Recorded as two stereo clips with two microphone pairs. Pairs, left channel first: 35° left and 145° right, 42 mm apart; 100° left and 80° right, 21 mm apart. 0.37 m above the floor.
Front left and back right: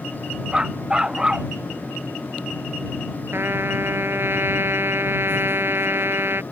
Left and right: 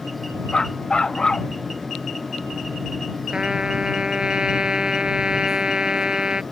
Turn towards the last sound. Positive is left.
turn(degrees=-130)